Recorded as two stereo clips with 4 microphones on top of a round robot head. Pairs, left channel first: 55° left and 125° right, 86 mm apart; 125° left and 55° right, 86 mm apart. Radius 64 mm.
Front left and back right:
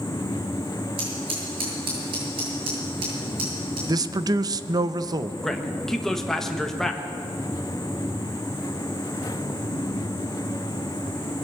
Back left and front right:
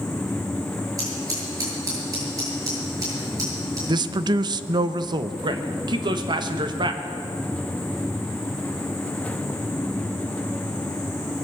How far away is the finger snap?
I don't hear a finger snap.